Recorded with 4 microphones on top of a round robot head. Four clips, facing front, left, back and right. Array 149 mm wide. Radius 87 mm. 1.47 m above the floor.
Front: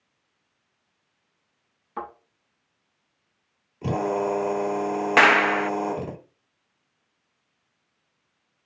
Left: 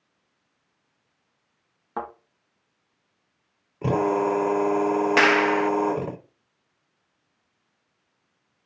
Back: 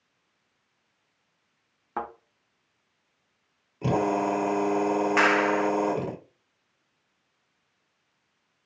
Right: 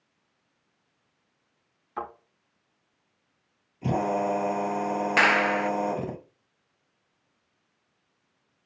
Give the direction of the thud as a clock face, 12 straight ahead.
8 o'clock.